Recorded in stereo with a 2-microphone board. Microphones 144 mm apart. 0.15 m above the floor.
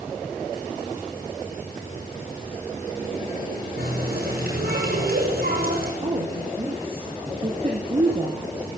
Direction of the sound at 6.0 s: 35° right (ahead or behind).